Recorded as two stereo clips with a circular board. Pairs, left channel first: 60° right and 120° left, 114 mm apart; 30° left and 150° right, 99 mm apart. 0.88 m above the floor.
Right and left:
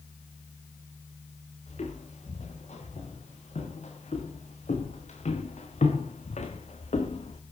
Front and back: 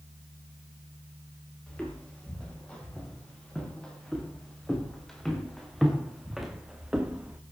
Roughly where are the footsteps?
Ahead right.